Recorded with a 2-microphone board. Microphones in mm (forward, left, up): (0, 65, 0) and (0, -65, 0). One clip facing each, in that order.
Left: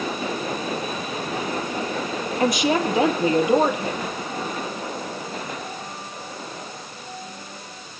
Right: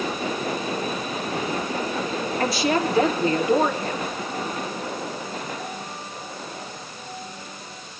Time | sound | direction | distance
2.4 | a woman speaking | 20° left (ahead or behind) | 3.5 m